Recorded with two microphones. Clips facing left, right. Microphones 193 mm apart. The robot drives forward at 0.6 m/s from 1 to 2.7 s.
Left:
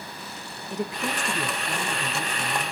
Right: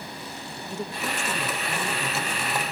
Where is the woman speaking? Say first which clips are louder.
Left 3 dB; 15° left (ahead or behind), 0.9 m; by 2.7 s 10° left (ahead or behind), 1.5 m.